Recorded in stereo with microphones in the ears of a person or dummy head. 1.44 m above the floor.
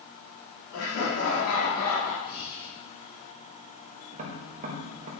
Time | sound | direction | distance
0.7 | laughter | 75° left (ahead or behind) | 4 m
2.2 | breathing | 35° left (ahead or behind) | 4.5 m
4.1 | tapping | 35° right (ahead or behind) | 0.9 m